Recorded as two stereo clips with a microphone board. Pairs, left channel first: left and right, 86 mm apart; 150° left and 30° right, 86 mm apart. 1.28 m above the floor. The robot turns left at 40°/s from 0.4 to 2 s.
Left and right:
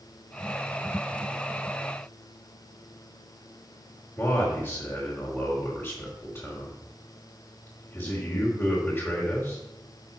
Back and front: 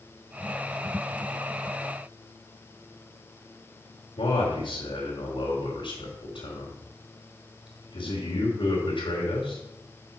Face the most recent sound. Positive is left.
turn(degrees=155)